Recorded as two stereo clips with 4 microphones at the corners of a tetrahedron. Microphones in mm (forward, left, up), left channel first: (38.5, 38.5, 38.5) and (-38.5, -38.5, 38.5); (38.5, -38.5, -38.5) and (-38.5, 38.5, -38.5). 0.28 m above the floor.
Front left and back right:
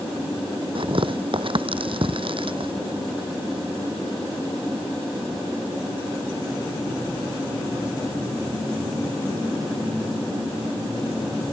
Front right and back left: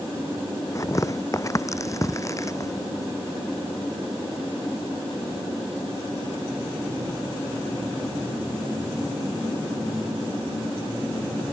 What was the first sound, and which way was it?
Tearing paper, 105° right.